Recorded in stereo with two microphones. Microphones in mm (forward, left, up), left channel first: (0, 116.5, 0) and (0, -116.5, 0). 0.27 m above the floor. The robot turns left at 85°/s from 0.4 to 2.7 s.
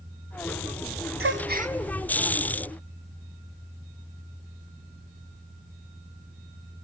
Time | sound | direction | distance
1.2 | a gasp | 65° right (ahead or behind) | 0.6 m